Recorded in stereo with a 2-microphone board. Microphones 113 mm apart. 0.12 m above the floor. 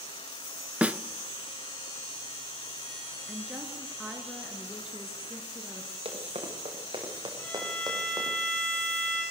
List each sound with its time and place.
0.8 s a snare drum: 10° right (ahead or behind), 0.7 m
3.3 s a woman speaking: 5° right (ahead or behind), 2 m
6.0 s running footsteps: 60° right (ahead or behind), 5 m; by 8.4 s 30° right (ahead or behind), 4.5 m
7.4 s a violin: 15° left (ahead or behind), 8.5 m